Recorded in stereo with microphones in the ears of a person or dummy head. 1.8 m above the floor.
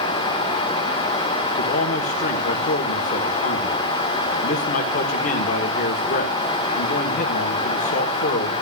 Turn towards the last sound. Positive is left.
turn(degrees=45)  # may be behind; listen again after turning